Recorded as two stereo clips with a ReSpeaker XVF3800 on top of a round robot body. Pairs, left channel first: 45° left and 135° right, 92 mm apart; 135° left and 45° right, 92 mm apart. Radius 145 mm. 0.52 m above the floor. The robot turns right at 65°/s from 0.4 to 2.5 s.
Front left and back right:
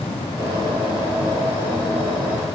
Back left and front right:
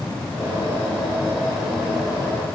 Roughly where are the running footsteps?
No running footsteps in this recording.